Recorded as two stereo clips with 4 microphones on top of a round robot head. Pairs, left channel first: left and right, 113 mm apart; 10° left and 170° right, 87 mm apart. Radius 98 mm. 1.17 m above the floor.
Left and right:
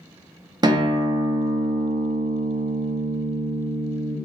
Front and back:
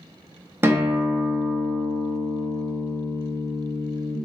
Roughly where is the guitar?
Behind right.